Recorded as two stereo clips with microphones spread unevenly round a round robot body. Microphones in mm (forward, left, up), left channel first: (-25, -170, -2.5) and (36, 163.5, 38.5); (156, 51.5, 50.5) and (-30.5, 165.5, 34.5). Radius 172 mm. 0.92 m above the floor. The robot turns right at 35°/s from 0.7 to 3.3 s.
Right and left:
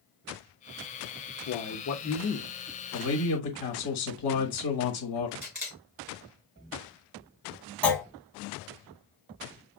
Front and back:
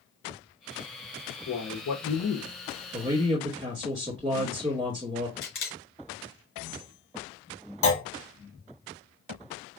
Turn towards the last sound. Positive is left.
turn(degrees=-15)